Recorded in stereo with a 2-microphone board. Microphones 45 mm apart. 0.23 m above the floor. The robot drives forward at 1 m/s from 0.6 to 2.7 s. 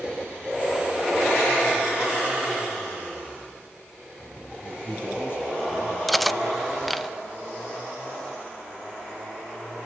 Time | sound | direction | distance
4.6 | a man speaking | 50° left (ahead or behind) | 6 m
6.1 | cutlery clinking | centre (ahead or behind) | 0.6 m